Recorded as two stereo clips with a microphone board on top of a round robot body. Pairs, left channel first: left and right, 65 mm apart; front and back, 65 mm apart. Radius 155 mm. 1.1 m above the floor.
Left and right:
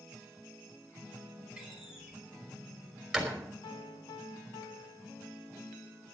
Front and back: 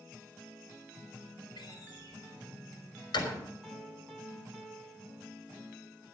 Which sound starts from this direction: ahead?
A door slam, at 1.6 s.